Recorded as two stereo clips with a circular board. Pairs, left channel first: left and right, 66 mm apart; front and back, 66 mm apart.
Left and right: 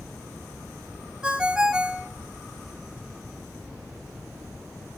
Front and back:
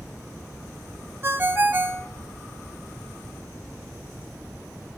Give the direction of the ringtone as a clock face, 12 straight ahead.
5 o'clock.